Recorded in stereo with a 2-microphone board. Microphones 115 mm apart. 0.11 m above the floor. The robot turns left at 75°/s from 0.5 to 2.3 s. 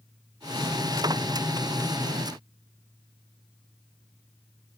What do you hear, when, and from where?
Only background noise.